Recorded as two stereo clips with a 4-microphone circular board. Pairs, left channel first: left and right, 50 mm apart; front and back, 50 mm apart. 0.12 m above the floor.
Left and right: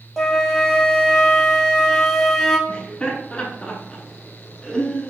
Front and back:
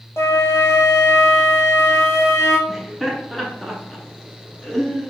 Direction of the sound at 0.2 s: 5° left.